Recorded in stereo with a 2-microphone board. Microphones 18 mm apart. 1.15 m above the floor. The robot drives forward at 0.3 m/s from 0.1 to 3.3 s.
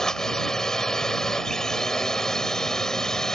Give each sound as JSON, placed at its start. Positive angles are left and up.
{"t": 0.0, "sound": "a drone", "side_deg": 30}